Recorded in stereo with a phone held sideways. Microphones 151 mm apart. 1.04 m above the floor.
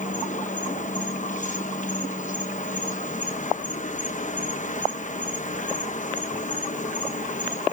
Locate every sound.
0.0 s an insect: 55° left (ahead or behind), 1.1 m